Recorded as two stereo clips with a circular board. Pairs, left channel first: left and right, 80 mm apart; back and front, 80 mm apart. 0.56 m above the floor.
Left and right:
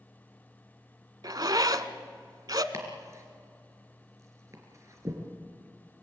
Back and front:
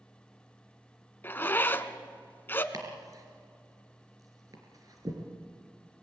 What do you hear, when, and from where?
1.2 s a zipper: 120° right, 1.0 m
2.7 s chopping: 40° right, 3.5 m